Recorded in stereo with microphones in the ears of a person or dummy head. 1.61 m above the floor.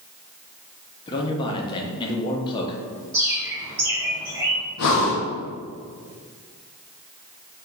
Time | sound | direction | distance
1.1 | a man speaking | 25° left (ahead or behind) | 0.6 m
3.1 | a bird | 5° right (ahead or behind) | 0.6 m
4.8 | breathing | 70° left (ahead or behind) | 0.7 m